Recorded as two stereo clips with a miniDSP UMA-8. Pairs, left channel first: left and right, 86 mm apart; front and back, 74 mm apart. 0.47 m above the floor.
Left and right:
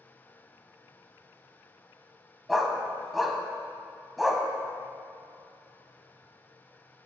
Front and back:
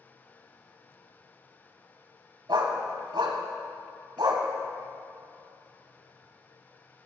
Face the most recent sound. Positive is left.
turn(degrees=-175)